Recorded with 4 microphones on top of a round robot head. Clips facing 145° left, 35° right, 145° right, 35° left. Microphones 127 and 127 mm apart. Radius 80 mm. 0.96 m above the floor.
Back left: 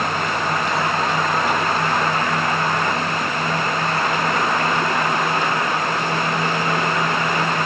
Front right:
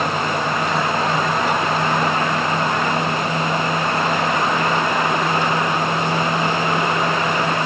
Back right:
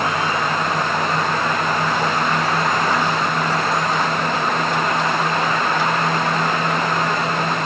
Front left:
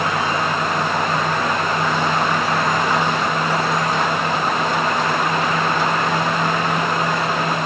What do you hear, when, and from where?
Only background noise.